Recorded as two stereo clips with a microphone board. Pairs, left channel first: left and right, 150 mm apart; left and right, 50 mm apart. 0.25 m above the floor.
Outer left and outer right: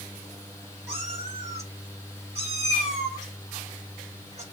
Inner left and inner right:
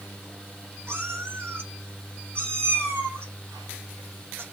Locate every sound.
0.9 s a cat meowing: 45° right (ahead or behind), 1.5 m